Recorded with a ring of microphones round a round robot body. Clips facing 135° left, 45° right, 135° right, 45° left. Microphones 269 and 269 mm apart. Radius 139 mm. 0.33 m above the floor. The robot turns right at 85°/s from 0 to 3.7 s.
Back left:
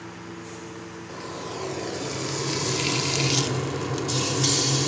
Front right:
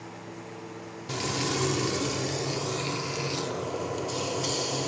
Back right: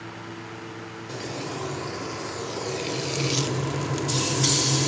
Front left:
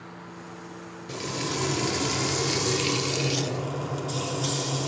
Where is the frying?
40° right, 0.6 m; by 4.9 s 175° right, 0.6 m.